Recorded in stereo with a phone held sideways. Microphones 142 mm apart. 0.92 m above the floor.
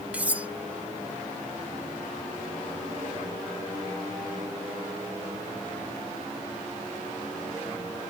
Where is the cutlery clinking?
10° right (ahead or behind).